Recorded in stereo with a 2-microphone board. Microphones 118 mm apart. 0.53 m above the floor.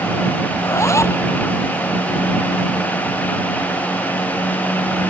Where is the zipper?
25° left (ahead or behind).